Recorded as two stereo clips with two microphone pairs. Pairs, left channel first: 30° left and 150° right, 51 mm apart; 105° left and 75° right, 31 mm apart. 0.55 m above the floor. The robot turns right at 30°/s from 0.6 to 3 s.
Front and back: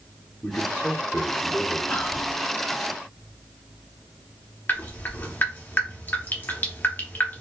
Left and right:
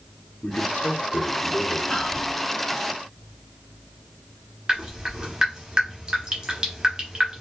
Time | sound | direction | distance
0.4 | a man speaking | 95° left | 1.1 m
1.9 | whispering | 60° left | 0.9 m
4.7 | dripping | 10° right | 1.0 m